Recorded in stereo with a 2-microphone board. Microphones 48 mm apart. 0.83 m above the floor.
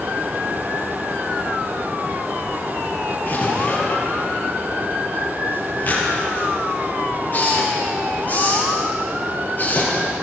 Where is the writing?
35° left (ahead or behind), 9.5 m.